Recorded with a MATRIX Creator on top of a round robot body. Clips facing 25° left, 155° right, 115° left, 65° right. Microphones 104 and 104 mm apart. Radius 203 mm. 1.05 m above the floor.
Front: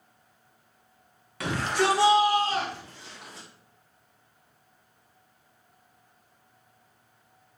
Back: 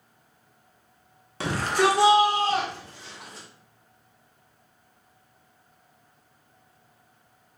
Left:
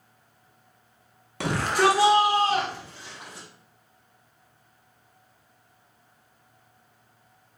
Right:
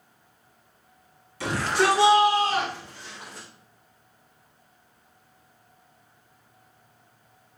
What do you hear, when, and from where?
1.4 s a shout: 140° left, 0.8 m; by 3.5 s 175° right, 2.5 m